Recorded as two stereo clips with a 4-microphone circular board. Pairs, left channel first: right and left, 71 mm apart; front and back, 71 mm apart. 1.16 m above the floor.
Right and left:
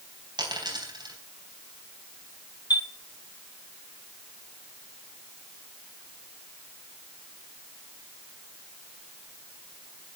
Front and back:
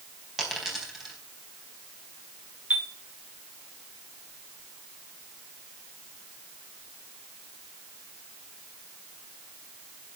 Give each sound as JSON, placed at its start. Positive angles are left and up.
{"t": 0.4, "sound": "a dropped coin", "azimuth_deg": 95, "distance_m": 4.0}
{"t": 2.7, "sound": "a chime", "azimuth_deg": -105, "distance_m": 1.6}